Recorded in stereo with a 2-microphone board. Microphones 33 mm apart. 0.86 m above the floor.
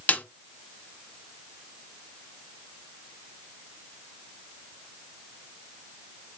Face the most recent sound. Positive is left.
turn(degrees=55)  # may be behind; listen again after turning